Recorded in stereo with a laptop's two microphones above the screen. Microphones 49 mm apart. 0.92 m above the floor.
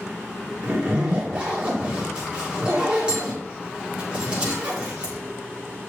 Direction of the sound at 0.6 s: 20° right (ahead or behind).